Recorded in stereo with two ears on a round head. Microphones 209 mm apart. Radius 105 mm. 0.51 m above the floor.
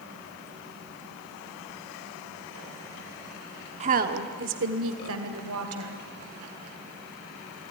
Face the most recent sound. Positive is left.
turn(degrees=-70)  # may be behind; listen again after turning